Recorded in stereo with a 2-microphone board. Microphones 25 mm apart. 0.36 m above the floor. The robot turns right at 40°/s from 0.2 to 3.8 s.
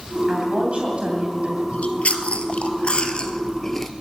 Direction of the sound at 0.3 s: 130° right.